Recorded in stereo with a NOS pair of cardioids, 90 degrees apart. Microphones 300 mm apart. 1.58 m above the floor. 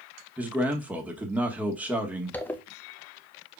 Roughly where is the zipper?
Ahead.